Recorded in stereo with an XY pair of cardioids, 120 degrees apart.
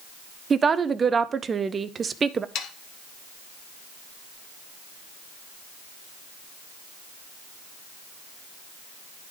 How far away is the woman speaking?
About 0.5 m.